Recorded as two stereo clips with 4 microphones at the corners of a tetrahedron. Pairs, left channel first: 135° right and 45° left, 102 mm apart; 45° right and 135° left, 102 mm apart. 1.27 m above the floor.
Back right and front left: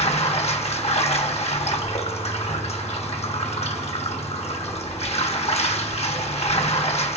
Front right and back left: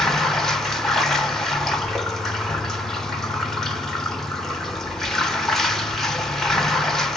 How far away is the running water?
About 1.2 m.